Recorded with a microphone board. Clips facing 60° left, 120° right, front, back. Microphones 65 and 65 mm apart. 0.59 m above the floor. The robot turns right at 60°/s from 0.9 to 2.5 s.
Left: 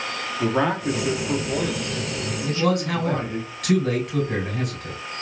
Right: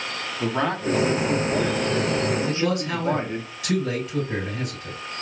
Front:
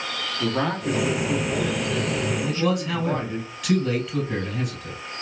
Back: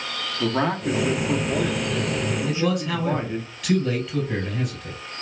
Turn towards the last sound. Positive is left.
turn(degrees=90)